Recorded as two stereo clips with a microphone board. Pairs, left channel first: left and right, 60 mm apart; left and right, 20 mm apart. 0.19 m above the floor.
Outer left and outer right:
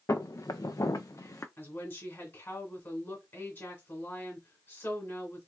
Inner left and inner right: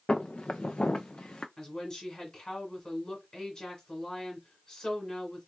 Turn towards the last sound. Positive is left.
turn(degrees=40)  # may be behind; listen again after turning